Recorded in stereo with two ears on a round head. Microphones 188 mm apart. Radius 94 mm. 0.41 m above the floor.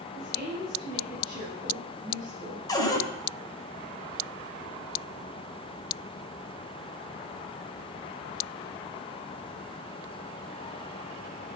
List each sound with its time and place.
0.1 s a woman speaking: centre (ahead or behind), 7.5 m; by 2.6 s 15° right (ahead or behind), 5.5 m
2.7 s a cupboard door: 15° left (ahead or behind), 1.8 m